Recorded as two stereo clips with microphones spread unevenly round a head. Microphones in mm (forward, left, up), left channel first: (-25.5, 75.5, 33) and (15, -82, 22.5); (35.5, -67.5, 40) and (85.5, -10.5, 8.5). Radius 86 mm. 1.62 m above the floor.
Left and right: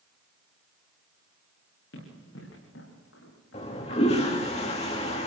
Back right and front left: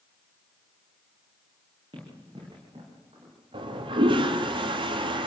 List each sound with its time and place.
1.9 s running footsteps: 110° left, 8.5 m; by 4.4 s 100° left, 10.5 m
3.5 s a toilet flushing: 50° left, 2.5 m